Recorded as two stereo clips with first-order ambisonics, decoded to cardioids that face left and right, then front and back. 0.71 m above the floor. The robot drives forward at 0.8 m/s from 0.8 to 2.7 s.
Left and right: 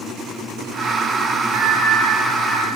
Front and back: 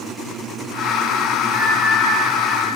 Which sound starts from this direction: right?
A bell, at 1.5 s.